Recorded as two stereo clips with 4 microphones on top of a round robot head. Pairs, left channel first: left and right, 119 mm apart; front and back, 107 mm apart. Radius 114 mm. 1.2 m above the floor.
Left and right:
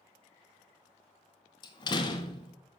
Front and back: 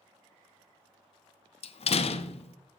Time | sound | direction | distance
1.6 | a door slam | 30° left | 0.5 m